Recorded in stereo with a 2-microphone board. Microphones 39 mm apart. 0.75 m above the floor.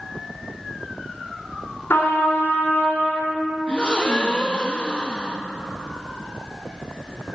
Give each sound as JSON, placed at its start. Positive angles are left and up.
{"t": 1.9, "sound": "a trumpet", "side_deg": 85, "distance_m": 3.5}
{"t": 3.7, "sound": "a gasp", "side_deg": 25, "distance_m": 0.8}